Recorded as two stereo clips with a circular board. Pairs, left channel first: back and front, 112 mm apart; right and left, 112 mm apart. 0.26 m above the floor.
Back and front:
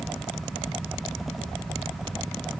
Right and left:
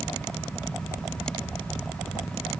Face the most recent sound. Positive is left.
No sound to turn to.